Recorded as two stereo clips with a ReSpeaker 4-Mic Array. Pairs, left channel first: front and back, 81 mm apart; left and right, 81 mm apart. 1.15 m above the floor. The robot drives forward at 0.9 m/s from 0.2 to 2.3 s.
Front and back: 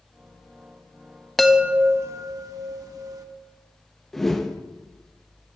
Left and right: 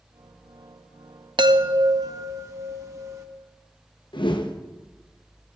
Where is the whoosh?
85° left, 0.7 m.